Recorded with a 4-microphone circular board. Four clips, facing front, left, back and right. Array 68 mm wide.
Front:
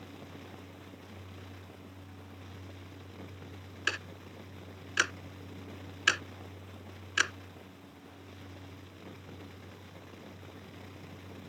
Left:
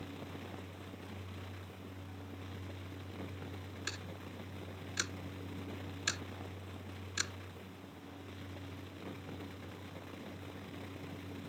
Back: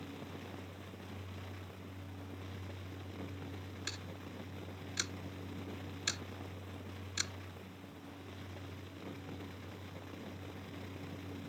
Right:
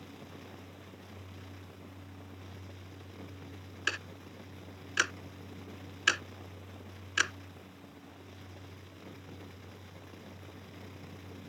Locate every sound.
3.9 s ticking: 45° right